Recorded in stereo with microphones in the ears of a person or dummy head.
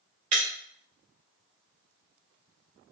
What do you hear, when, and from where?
0.3 s breaking glass: 25° right (ahead or behind), 0.8 m